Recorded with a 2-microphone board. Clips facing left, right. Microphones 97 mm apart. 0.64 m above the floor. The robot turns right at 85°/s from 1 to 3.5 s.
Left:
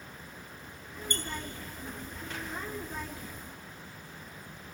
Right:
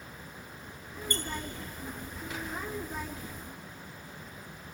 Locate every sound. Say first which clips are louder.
1.1 s a squeak: right 2 dB; 30° right (ahead or behind), 2.5 m; by 1.2 s 40° right (ahead or behind), 2.5 m